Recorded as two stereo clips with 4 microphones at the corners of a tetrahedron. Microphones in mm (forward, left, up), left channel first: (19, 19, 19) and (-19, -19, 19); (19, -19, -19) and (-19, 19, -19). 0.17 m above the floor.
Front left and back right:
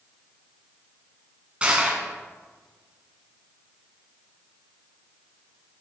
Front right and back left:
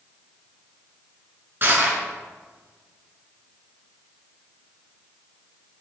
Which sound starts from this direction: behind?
Crushing, at 1.6 s.